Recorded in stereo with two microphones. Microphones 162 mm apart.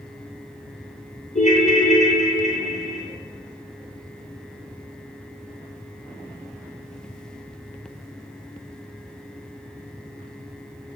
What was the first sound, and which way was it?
A ringtone, 50° left (ahead or behind).